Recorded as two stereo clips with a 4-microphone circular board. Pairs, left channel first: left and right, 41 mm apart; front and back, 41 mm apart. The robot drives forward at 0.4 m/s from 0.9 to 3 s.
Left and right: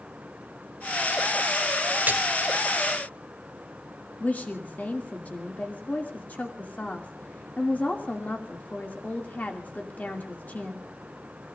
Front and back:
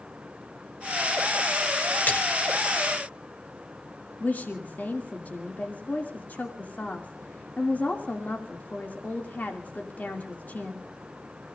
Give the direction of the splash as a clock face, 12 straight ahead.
1 o'clock.